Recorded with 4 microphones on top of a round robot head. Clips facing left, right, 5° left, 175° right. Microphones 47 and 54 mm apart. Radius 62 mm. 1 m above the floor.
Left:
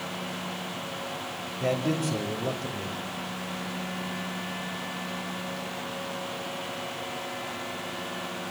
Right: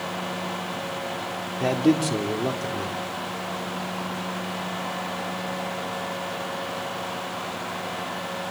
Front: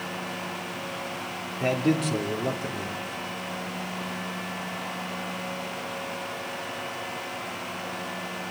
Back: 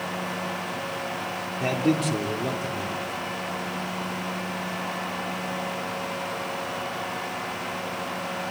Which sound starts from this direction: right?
A man speaking, at 1.6 s.